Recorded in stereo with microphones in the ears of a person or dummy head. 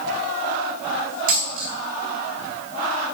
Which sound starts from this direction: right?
A dropped coin, at 1.3 s.